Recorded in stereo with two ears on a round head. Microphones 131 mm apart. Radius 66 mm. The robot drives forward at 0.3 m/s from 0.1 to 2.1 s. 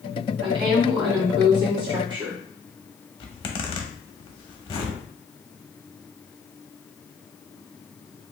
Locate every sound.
0.4 s a woman speaking: 35° right (ahead or behind), 1.5 m; by 2.4 s 30° right (ahead or behind), 1.8 m
3.2 s a zipper: 35° left (ahead or behind), 0.8 m